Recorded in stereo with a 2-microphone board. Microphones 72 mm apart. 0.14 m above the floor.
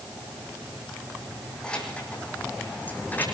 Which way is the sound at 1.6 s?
15° left (ahead or behind).